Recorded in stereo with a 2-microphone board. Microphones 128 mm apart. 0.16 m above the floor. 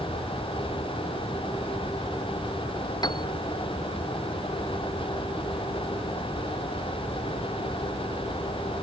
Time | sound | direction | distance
3.0 | a piano | 35° left (ahead or behind) | ?